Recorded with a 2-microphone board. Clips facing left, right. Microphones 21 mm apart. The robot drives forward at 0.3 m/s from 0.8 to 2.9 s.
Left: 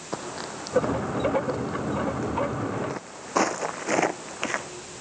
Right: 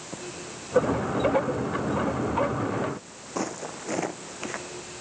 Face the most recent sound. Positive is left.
turn(degrees=30)  # may be behind; listen again after turning